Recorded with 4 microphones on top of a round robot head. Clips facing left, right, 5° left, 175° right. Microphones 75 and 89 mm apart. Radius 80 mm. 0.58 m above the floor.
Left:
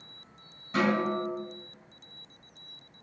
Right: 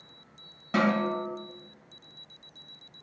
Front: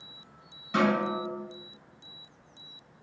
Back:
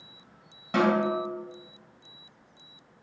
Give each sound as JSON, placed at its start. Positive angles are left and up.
{"t": 0.7, "sound": "a snare drum", "azimuth_deg": -125, "distance_m": 1.8}